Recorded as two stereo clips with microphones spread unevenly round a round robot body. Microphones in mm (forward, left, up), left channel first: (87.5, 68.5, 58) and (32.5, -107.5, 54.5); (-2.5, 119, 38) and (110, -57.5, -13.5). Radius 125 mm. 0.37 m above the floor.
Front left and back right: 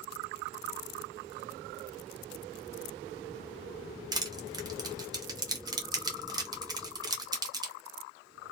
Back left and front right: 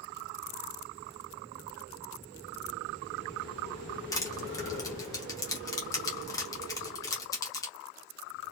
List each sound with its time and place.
4.1 s crushing: 150° right, 0.9 m